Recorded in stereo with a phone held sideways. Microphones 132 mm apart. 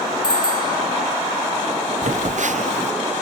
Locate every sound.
0.2 s a bicycle bell: 30° left (ahead or behind)
2.0 s a phone buzzing: 70° right (ahead or behind)